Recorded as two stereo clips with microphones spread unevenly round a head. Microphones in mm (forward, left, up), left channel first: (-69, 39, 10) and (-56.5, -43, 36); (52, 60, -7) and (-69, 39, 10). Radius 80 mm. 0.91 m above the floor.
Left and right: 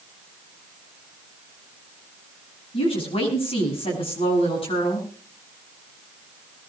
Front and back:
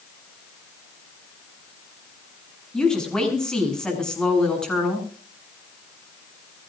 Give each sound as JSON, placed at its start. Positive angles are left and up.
{"t": 2.7, "sound": "a woman speaking", "azimuth_deg": 95, "distance_m": 8.5}